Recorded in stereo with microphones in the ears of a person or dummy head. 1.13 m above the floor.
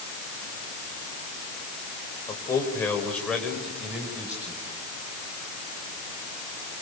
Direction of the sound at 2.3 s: 20° left (ahead or behind).